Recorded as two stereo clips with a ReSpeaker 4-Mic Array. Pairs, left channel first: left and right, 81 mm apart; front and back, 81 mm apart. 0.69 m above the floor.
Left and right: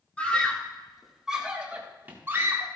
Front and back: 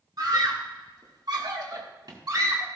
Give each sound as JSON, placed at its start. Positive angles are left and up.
{"t": 0.2, "sound": "a scream", "azimuth_deg": 160, "distance_m": 2.0}